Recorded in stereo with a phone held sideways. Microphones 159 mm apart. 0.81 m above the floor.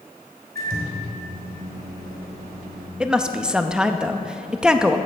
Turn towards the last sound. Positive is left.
turn(degrees=-5)  # may be behind; listen again after turning